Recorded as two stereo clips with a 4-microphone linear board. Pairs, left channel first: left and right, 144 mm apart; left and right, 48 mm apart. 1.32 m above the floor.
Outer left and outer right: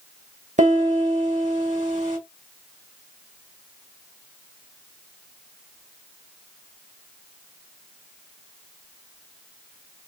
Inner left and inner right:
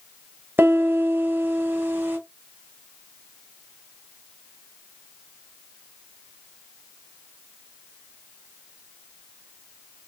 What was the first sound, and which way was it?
A piano, 60° right (ahead or behind).